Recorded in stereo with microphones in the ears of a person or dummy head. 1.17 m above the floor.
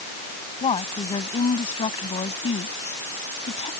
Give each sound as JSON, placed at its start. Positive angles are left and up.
{"t": 0.6, "sound": "a woman speaking", "side_deg": 25}